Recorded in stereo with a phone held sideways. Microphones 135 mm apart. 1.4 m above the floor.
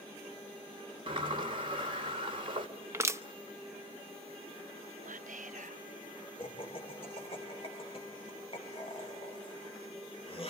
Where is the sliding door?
40° right (ahead or behind), 2.5 m.